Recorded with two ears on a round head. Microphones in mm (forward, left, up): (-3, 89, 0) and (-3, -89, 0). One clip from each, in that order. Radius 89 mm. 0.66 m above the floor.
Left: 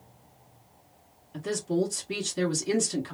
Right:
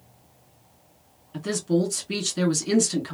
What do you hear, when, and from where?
1.3 s a woman speaking: 15° right (ahead or behind), 1.6 m